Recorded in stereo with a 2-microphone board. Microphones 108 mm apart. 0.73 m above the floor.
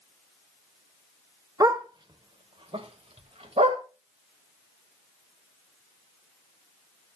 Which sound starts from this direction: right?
A dog barking, at 1.6 s.